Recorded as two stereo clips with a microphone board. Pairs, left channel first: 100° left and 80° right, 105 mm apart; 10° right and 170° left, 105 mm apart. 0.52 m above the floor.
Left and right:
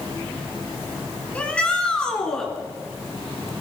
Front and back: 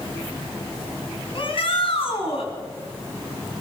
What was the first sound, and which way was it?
A shout, 20° left.